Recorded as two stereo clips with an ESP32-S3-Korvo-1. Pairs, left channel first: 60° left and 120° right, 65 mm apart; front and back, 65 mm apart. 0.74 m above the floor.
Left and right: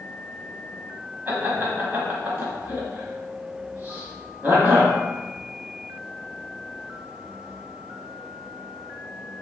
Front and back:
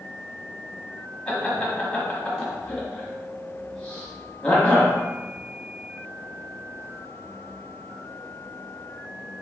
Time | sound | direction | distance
1.3 | laughter | 70° right | 1.2 m